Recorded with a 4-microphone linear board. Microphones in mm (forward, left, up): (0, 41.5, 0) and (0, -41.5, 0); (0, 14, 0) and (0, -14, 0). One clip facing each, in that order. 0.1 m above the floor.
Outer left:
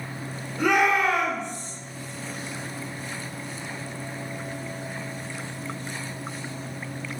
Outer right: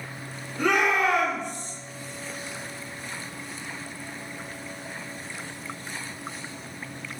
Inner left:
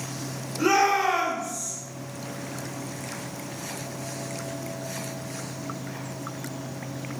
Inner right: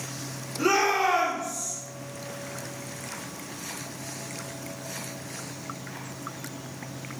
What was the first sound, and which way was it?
A shout, 15° left (ahead or behind).